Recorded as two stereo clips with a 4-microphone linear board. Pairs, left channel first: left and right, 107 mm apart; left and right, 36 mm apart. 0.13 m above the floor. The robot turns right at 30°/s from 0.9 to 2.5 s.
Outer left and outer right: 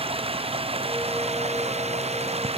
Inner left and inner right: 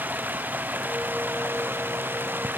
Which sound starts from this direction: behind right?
Running water, at 0.0 s.